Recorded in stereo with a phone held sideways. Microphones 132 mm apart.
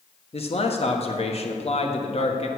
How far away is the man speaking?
About 1.3 m.